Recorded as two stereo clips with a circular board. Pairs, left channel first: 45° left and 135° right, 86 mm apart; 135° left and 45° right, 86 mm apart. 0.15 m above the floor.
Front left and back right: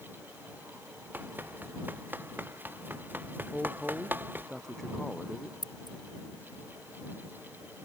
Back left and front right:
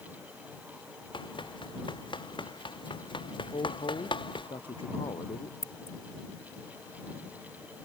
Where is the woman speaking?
130° left.